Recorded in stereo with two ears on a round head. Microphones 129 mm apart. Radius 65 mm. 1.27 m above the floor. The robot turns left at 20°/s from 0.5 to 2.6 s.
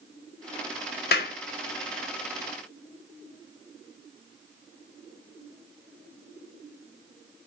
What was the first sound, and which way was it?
A clap, 75° left (ahead or behind).